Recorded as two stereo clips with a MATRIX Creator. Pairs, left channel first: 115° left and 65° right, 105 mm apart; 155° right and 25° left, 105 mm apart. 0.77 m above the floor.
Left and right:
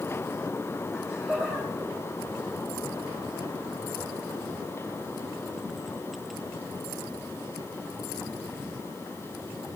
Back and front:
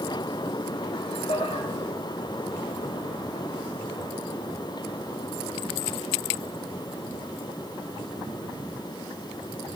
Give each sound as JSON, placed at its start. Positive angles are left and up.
{"t": 0.9, "sound": "laughter", "azimuth_deg": -150, "distance_m": 3.5}